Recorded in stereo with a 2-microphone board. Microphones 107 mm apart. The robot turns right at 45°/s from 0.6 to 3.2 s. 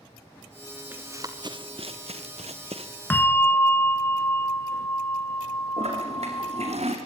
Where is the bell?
20° left (ahead or behind), 0.7 m.